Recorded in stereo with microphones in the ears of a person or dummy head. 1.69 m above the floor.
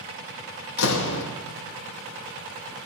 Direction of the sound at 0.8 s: 65° left (ahead or behind).